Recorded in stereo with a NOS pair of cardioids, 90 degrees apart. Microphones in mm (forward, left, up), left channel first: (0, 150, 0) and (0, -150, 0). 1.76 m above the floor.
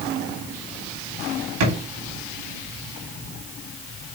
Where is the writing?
I don't hear writing.